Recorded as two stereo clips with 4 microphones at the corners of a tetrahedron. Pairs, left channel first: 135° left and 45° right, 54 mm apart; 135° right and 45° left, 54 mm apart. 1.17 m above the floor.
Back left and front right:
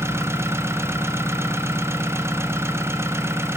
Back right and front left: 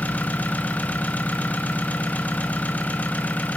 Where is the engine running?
75° right, 0.9 m.